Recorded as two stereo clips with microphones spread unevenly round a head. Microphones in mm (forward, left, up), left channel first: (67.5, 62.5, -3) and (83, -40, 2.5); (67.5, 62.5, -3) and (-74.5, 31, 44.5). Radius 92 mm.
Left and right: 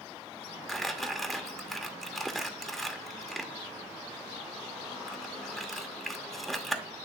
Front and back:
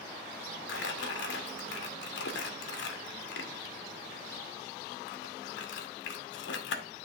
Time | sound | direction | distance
0.7 | crumpling | 10° left | 1.1 m